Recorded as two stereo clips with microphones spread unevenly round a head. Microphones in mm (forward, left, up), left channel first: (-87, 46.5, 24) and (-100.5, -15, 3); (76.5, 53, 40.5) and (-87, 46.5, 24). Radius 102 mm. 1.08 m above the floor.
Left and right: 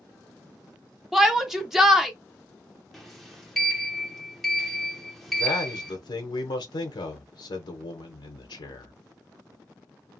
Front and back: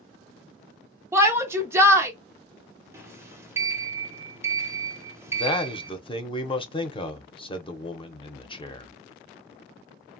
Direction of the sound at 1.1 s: 135° right.